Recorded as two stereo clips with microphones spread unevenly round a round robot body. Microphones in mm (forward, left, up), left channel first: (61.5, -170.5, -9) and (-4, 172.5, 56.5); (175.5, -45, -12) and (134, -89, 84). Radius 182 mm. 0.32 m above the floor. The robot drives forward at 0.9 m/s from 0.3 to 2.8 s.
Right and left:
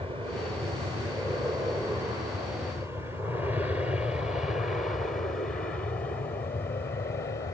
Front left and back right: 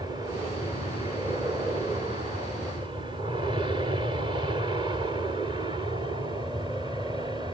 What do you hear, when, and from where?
0.0 s an aircraft: 25° left; by 7.5 s 25° right